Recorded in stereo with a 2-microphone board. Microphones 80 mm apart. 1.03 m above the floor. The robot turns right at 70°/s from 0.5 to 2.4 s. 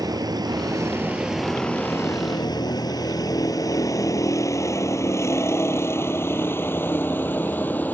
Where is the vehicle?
55° right (ahead or behind); by 7.9 s 20° left (ahead or behind).